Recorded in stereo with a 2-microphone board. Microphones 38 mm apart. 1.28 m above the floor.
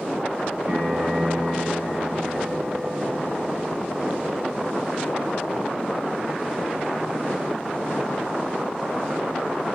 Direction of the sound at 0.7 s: 65° right (ahead or behind).